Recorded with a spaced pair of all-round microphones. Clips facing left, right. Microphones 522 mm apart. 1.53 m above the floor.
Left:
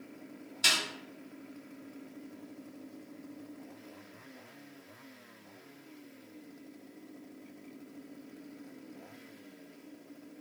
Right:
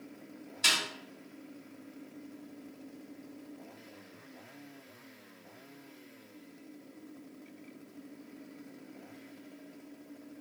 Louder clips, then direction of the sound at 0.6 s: Even; 5° left (ahead or behind).